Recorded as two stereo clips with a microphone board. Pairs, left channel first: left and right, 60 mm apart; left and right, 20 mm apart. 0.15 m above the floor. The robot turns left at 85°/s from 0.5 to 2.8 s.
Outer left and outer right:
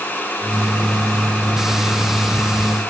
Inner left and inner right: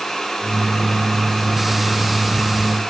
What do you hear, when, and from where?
Only background noise.